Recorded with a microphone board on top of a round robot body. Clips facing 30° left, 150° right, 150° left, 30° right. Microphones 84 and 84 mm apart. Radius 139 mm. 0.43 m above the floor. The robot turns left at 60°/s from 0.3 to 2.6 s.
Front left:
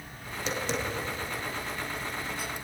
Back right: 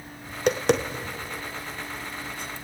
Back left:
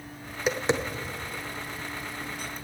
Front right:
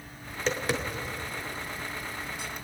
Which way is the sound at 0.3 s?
120° right.